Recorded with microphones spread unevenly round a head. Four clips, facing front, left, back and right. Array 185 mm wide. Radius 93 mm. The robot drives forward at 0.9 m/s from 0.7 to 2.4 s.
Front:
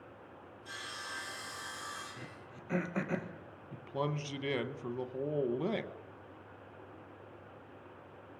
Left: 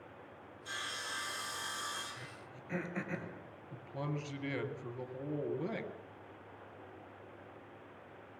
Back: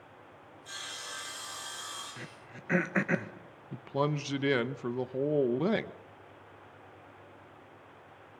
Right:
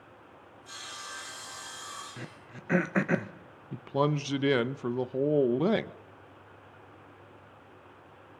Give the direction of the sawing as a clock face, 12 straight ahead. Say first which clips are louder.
Left 1 dB, even; 9 o'clock.